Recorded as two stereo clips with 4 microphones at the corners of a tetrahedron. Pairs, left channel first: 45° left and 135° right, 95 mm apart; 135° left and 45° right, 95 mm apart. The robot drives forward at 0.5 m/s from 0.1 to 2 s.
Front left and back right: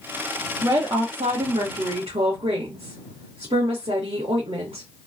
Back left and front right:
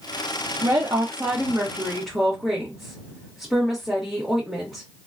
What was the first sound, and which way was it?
A woman speaking, 80° right.